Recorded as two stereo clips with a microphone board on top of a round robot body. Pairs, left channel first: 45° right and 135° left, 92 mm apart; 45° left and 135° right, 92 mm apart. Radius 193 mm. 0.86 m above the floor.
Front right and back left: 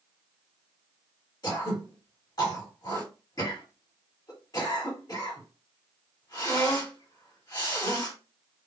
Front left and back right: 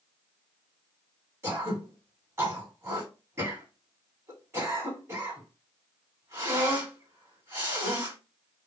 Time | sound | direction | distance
1.4 | throat clearing | 80° right | 1.6 m